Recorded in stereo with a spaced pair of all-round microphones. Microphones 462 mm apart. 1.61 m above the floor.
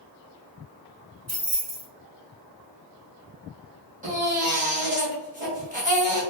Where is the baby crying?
15° right (ahead or behind), 1.1 m.